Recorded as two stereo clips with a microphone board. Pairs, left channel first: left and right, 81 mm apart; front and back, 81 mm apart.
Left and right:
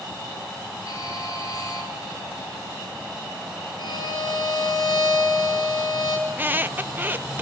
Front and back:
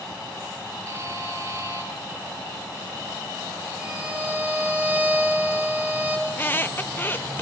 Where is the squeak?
45° right, 0.6 m.